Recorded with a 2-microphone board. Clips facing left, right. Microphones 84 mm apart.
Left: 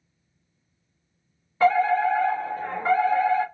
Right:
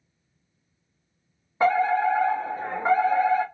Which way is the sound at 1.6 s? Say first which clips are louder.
Left 1 dB; 25° right (ahead or behind).